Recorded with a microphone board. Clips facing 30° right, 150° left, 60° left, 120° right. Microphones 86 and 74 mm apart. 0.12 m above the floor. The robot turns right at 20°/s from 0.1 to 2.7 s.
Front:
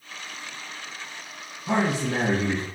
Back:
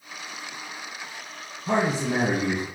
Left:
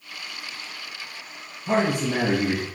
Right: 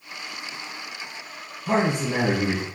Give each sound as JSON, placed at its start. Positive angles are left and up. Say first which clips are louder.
{"t": 1.7, "sound": "a man speaking", "louder": "even, even", "azimuth_deg": 175, "distance_m": 1.5}